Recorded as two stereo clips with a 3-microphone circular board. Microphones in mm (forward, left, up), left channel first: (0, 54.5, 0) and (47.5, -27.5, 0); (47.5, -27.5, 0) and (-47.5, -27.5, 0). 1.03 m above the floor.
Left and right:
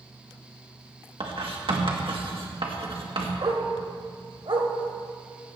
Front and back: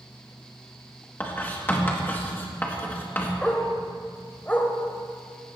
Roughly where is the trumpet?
No trumpet in this recording.